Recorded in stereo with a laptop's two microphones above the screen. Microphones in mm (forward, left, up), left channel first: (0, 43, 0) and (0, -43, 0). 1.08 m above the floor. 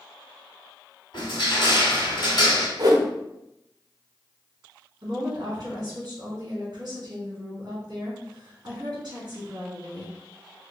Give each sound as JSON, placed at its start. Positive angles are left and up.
{"t": 1.1, "sound": "crushing", "side_deg": 60, "distance_m": 1.8}
{"t": 2.8, "sound": "a whoosh", "side_deg": -45, "distance_m": 0.8}
{"t": 5.0, "sound": "a woman speaking", "side_deg": -50, "distance_m": 1.9}